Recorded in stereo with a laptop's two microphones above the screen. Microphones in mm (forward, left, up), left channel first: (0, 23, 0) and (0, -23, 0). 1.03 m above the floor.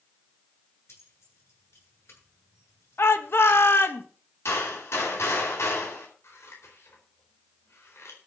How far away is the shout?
About 1.4 m.